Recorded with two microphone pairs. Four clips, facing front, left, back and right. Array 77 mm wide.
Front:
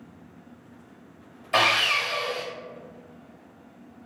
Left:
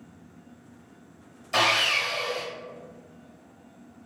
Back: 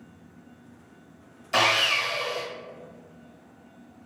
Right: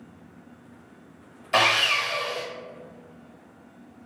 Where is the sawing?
55° right, 0.8 m.